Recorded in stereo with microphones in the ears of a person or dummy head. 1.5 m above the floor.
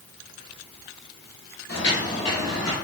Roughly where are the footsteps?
Left.